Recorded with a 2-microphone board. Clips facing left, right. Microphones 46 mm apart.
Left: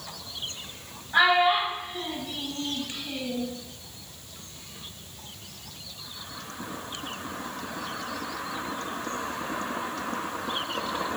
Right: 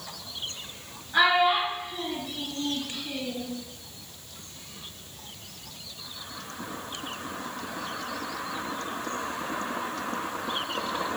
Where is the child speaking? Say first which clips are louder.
Left 1 dB; 40° left (ahead or behind), 1.7 m.